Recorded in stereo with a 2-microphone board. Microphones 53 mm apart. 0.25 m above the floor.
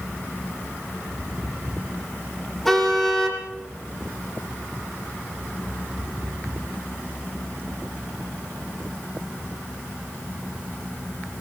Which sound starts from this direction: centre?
A car horn, at 2.6 s.